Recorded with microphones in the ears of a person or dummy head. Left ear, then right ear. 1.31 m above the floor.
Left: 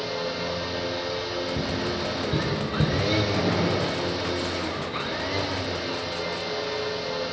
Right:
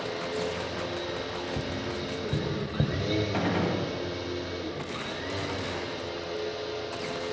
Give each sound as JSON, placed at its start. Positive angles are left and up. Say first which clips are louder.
{"t": 0.0, "sound": "a machine running", "louder": "left 3 dB", "side_deg": 20, "distance_m": 2.0}
{"t": 1.6, "sound": "tapping", "louder": "left 5 dB", "side_deg": -75, "distance_m": 5.5}
{"t": 3.3, "sound": "a gunshot", "louder": "left 4 dB", "side_deg": -65, "distance_m": 7.0}